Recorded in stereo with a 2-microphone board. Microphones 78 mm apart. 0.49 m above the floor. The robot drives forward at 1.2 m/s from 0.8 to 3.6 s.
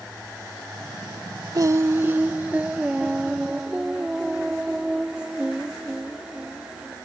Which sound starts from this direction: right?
Singing, at 1.6 s.